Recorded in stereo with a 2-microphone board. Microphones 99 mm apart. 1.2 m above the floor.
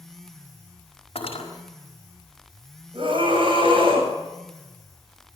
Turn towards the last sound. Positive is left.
turn(degrees=-60)  # may be behind; listen again after turning